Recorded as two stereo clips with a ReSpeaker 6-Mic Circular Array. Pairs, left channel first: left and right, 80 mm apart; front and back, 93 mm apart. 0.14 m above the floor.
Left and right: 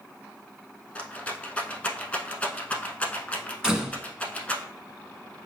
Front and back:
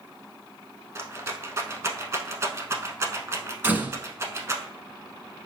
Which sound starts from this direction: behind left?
A rattle, at 0.9 s.